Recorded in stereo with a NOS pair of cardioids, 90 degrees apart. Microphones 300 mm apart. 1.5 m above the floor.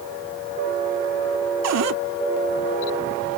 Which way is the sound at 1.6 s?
60° right.